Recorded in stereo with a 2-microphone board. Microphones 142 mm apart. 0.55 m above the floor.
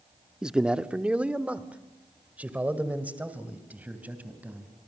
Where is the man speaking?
5° right (ahead or behind), 0.7 m; by 4.7 s 10° right (ahead or behind), 3 m.